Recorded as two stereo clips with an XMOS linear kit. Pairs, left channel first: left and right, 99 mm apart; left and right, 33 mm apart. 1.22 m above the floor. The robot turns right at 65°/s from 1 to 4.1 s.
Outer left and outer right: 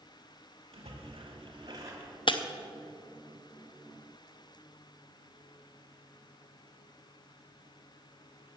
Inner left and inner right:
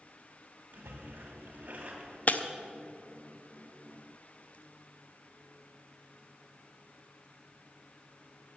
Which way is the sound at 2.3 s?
55° left (ahead or behind).